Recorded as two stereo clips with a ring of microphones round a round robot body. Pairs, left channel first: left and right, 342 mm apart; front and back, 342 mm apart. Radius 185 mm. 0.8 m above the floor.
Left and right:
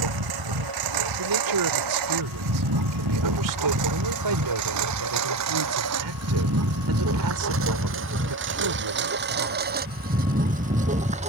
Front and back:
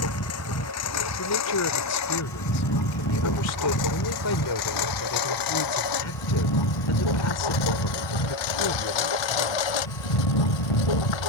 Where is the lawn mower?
55° right; by 11.3 s 15° right.